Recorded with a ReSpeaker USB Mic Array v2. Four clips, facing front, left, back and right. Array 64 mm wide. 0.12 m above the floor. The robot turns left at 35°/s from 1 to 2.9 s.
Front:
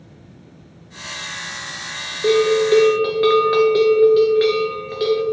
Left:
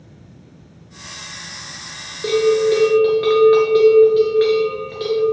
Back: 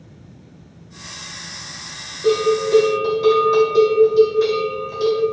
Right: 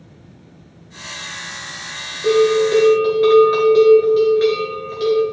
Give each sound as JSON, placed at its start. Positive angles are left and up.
{"t": 2.2, "sound": "a bell", "azimuth_deg": 30, "distance_m": 1.6}